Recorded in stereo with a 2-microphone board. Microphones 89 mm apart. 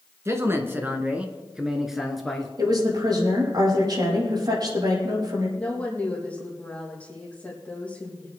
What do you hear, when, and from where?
0.2 s a man speaking: 30° right (ahead or behind), 1.6 m; by 2.5 s 5° left (ahead or behind), 1.9 m
2.6 s a woman speaking: 50° right (ahead or behind), 6 m
5.6 s a woman speaking: 15° left (ahead or behind), 4 m